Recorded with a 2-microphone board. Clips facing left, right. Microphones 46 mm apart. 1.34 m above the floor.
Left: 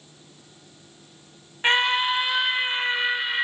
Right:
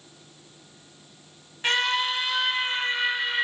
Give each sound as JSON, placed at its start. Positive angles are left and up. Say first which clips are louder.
{"t": 1.6, "sound": "a scream", "louder": "left 3 dB", "side_deg": 25, "distance_m": 1.2}